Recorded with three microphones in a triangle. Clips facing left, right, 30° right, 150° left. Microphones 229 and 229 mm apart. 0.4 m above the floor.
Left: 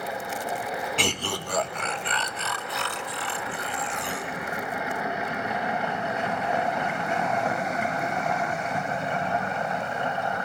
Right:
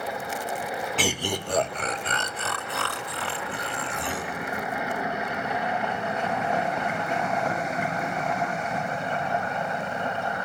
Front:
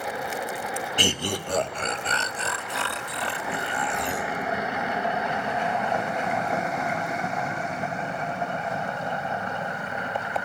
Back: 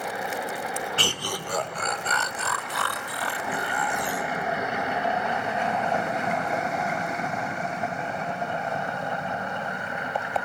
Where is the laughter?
Straight ahead, 0.7 m; by 4.3 s 95° right, 2 m.